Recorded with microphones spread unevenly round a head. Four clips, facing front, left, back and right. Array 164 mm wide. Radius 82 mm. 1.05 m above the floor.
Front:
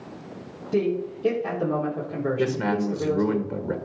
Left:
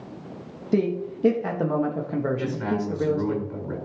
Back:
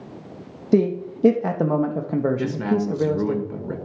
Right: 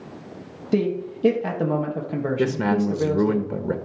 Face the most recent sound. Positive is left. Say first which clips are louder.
# right 5 dB, back 1 dB
turn(degrees=-80)